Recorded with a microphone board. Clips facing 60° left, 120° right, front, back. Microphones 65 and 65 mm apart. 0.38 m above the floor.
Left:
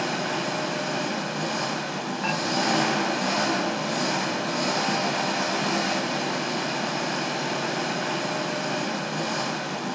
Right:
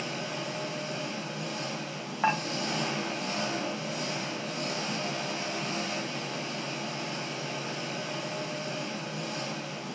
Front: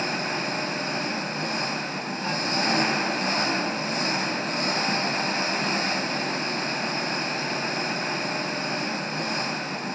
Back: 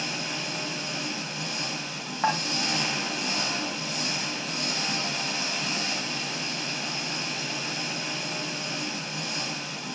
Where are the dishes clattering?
175° left, 1.8 m.